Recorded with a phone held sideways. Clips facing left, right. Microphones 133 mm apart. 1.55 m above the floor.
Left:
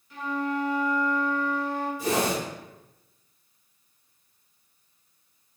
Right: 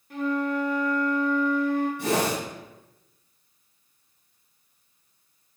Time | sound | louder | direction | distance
0.1 | a flute | right 3 dB | 55° right (ahead or behind) | 0.7 m
2.0 | a whoosh | right 1 dB | 70° right (ahead or behind) | 1.3 m